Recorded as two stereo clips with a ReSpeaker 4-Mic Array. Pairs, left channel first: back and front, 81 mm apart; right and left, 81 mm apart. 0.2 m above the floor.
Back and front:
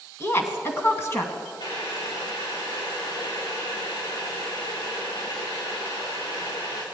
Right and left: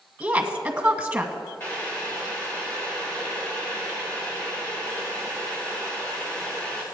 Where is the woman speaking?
150° left, 1.8 m.